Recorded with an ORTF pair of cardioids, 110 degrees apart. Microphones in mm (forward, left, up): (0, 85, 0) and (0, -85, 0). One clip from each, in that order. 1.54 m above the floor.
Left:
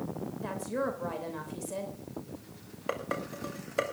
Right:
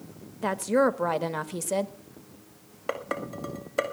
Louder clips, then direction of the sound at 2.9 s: Right 3 dB; 15° right.